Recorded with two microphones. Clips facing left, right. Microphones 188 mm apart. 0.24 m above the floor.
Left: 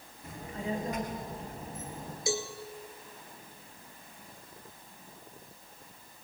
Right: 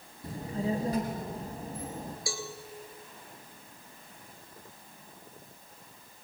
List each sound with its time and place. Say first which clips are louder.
0.2 s a child speaking: right 4 dB; 35° right (ahead or behind), 2 m
2.3 s a cowbell: left 10 dB; 20° left (ahead or behind), 2.5 m